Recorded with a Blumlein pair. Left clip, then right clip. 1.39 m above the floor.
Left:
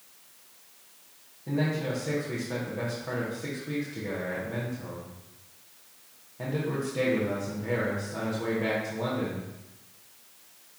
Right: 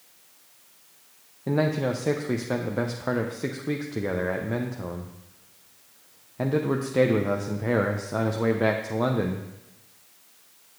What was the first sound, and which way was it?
A man speaking, 60° right.